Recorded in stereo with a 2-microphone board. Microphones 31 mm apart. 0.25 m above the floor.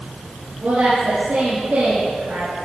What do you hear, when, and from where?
0.6 s a woman speaking: 75° right (ahead or behind), 5 m